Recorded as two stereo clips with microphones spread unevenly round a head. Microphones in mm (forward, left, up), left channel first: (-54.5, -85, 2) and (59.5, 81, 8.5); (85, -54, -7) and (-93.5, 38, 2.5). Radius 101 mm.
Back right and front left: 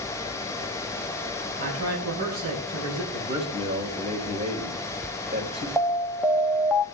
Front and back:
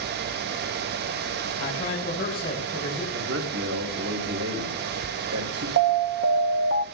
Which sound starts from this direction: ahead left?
A man speaking, at 1.6 s.